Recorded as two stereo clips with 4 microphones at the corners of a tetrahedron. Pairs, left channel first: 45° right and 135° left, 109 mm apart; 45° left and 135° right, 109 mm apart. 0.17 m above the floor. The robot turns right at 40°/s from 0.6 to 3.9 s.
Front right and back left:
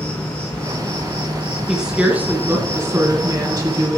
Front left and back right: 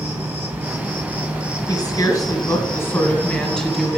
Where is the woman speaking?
50° left, 2.0 m; by 4.0 s 140° left, 2.0 m.